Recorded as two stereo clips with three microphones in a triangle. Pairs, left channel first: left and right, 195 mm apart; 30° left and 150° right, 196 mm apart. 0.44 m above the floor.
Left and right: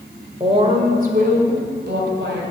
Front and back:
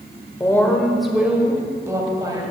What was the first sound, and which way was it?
A woman speaking, 40° right.